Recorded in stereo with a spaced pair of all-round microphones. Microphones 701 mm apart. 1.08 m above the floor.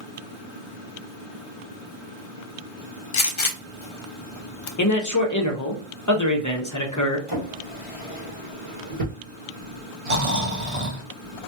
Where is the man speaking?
25° left (ahead or behind), 0.7 m.